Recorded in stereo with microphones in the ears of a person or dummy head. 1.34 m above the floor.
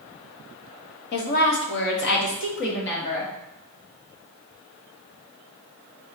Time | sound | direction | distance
1.1 | a woman speaking | 55° left (ahead or behind) | 0.8 m